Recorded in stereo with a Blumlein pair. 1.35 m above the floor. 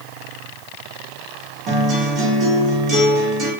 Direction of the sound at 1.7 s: 30° right.